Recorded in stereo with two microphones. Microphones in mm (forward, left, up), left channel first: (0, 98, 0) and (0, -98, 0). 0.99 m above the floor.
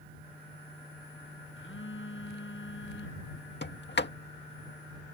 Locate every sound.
1.6 s a phone buzzing: 80° left
3.6 s a sliding door: 60° left (ahead or behind)